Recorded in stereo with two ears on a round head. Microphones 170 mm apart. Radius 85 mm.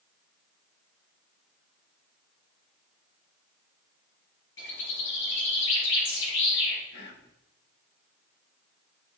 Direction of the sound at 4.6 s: 70° left (ahead or behind).